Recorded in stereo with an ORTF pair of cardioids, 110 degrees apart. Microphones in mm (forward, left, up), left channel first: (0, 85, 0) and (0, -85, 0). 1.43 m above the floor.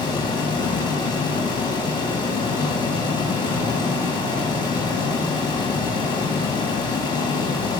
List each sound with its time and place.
0.0 s a fan: 25° left, 2.5 m